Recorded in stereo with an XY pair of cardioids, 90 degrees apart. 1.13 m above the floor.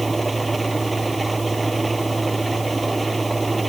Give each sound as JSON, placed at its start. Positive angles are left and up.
{"t": 0.0, "sound": "an engine running", "azimuth_deg": -25}